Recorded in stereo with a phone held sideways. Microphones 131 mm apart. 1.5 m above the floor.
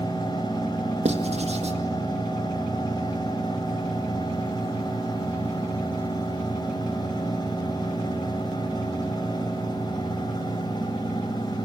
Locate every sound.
0.0 s a fan: 35° left (ahead or behind), 4.5 m
1.1 s writing: 55° right (ahead or behind), 1.9 m